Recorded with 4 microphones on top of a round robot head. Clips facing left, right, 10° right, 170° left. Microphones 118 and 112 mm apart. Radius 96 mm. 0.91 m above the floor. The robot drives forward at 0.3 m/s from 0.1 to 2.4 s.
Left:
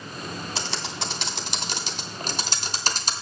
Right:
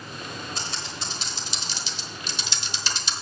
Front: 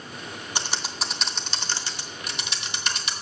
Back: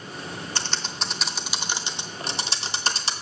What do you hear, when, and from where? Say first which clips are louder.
0.6 s typing on a keyboard: left 3 dB, front 3 dB; 60° left, 0.8 m; by 3.1 s 125° left, 0.8 m